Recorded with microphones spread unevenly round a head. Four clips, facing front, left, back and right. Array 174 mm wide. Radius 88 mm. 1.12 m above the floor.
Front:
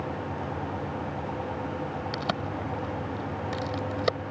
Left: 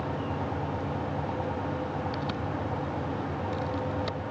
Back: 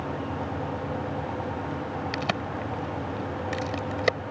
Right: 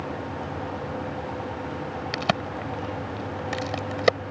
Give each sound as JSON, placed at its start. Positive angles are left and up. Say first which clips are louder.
{"t": 2.1, "sound": "a crack", "louder": "right 5 dB, even", "azimuth_deg": -100}